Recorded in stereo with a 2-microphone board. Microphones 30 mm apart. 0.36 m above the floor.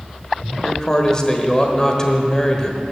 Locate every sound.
0.6 s a man speaking: 20° left (ahead or behind), 1.2 m